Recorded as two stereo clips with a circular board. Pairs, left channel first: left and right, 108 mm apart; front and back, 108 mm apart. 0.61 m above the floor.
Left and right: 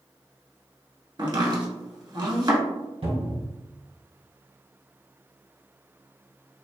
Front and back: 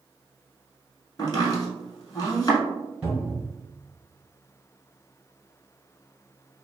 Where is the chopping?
50° right, 0.9 m.